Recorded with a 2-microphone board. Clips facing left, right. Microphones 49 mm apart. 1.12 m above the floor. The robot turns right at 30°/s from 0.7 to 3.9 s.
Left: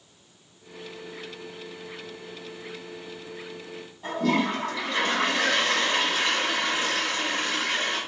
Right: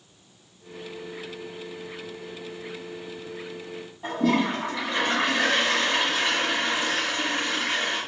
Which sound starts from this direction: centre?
A toilet flushing, at 4.0 s.